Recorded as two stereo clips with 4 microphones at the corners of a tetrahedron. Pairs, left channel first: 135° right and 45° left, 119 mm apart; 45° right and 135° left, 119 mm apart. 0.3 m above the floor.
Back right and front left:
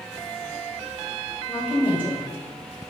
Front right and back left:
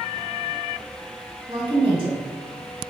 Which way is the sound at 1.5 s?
115° left.